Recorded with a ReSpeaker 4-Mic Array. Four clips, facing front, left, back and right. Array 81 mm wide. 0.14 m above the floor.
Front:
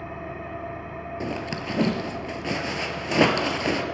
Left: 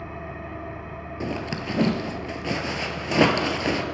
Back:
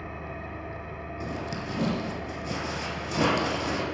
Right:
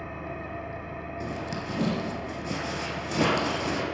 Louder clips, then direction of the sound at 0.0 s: Left 1 dB, front 3 dB; 20° left.